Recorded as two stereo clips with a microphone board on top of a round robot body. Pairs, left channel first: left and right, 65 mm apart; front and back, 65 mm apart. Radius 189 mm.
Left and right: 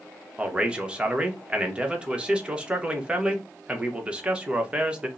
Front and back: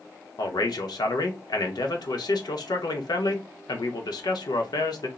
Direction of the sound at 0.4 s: 15° right.